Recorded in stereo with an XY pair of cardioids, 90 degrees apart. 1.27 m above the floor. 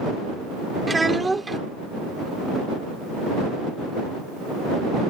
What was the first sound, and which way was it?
A child speaking, 20° right.